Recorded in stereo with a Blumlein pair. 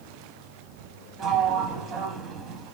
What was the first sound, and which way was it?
A sliding door, 30° right.